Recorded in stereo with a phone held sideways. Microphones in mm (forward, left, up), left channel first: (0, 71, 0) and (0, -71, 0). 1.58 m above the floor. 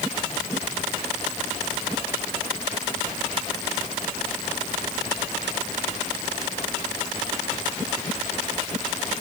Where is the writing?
I don't hear writing.